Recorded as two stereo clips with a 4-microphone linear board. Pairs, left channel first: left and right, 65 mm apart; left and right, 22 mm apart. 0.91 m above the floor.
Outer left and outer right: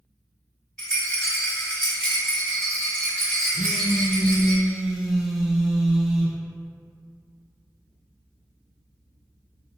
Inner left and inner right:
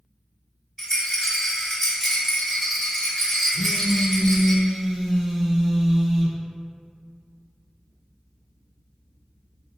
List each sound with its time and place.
0.8 s a rattle: 15° left (ahead or behind), 1.3 m
3.5 s a phone buzzing: 5° right (ahead or behind), 0.5 m